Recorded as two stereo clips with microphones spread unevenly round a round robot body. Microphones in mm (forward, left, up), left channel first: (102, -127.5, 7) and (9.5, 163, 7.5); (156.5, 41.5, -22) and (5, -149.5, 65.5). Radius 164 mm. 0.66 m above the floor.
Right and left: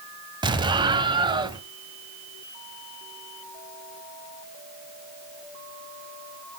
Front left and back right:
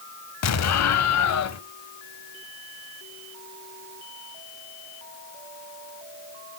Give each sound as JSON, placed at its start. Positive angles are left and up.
{"t": 0.4, "sound": "an explosion", "azimuth_deg": 30, "distance_m": 1.2}